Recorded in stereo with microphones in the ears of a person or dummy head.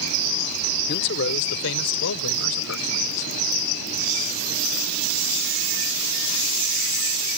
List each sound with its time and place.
0.9 s a man speaking: 55° left (ahead or behind); by 3.3 s 85° left